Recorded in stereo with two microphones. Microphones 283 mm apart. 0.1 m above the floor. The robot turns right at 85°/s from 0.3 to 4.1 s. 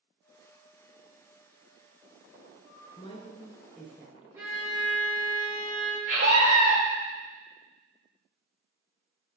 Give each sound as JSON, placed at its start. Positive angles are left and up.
{"t": 3.0, "sound": "a woman speaking", "side_deg": 20, "distance_m": 1.3}
{"t": 4.3, "sound": "a violin", "side_deg": -10, "distance_m": 2.5}
{"t": 6.1, "sound": "a scream", "side_deg": -45, "distance_m": 3.5}